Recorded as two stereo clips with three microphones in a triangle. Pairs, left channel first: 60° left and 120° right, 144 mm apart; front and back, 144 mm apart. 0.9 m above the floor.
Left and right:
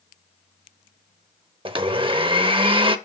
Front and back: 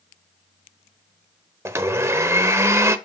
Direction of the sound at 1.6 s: 125° right.